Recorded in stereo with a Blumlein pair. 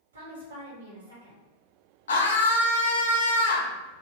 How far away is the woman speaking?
About 1.5 m.